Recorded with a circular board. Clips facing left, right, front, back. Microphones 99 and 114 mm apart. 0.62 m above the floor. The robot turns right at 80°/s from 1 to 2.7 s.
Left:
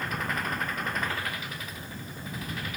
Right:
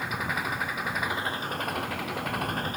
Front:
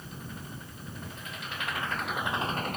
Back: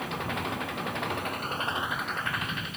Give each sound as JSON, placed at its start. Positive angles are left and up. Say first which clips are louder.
{"t": 0.0, "sound": "an engine running", "louder": "right 1 dB, back 11 dB", "azimuth_deg": -175}